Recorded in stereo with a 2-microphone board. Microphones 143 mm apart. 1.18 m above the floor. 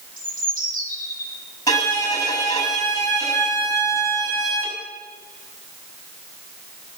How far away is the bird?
About 5.5 m.